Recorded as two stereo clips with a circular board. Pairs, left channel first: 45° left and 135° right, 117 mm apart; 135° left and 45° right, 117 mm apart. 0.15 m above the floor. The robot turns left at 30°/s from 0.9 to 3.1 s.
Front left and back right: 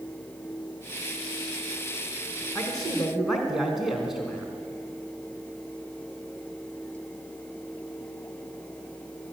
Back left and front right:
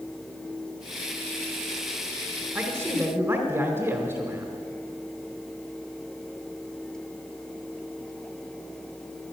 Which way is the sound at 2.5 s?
35° right.